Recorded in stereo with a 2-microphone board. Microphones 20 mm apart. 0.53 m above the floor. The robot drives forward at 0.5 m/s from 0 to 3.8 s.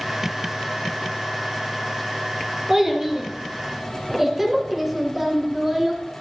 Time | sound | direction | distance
2.7 | a child speaking | 20° right (ahead or behind) | 2.5 m